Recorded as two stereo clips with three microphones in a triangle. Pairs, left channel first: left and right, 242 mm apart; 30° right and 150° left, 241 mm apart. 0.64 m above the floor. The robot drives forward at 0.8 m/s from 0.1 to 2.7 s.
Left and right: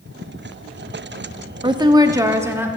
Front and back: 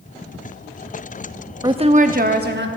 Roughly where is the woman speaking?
Behind right.